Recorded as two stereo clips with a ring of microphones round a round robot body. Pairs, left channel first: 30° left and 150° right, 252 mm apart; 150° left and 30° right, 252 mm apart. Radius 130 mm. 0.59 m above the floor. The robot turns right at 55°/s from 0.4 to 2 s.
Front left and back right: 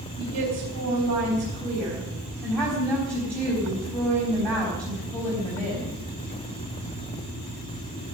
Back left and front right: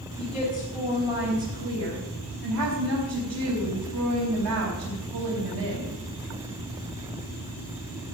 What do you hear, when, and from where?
0.2 s a woman speaking: 145° right, 4.5 m; by 6.0 s 55° right, 4.5 m